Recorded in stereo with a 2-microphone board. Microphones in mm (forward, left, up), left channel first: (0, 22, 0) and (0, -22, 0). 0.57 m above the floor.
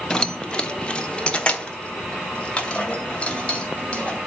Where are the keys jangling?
15° left (ahead or behind), 0.7 m; by 4.2 s 25° left (ahead or behind), 3 m.